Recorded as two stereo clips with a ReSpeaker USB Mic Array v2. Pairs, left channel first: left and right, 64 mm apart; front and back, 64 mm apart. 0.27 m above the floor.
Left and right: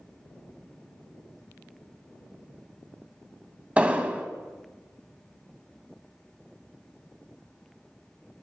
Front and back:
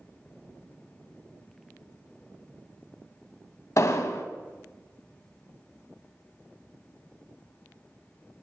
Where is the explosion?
25° right, 0.6 m.